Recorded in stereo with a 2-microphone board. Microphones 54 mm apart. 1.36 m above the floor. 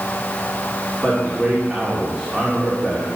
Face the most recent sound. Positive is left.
turn(degrees=-10)  # may be behind; listen again after turning